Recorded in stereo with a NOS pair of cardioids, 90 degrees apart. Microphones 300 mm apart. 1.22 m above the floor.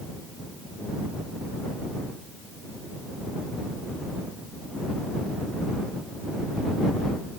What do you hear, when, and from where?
Only background noise.